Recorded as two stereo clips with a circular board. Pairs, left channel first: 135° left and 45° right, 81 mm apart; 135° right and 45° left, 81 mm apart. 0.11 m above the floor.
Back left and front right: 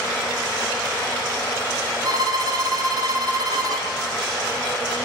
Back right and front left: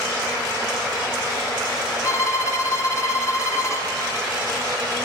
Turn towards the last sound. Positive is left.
turn(degrees=-80)